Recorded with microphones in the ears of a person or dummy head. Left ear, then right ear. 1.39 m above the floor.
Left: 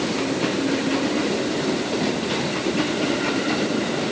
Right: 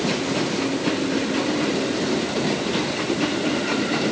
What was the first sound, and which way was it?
Only background noise.